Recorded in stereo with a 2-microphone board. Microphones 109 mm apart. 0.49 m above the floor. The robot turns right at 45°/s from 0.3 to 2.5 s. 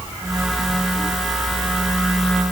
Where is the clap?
No clap in this recording.